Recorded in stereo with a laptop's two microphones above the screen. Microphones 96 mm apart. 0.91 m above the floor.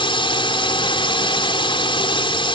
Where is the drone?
60° left (ahead or behind).